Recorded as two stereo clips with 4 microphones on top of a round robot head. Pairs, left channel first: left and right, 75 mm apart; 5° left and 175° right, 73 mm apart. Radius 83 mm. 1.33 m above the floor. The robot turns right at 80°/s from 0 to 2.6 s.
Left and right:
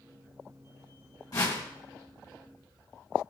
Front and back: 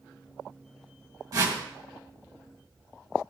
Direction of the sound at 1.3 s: 145° left.